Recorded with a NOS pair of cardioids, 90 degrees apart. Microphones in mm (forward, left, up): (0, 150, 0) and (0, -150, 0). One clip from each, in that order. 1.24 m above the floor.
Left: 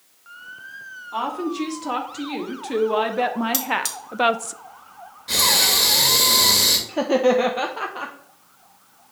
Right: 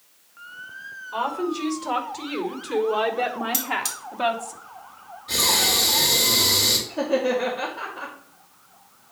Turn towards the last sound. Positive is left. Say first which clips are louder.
# left 4 dB
turn(degrees=70)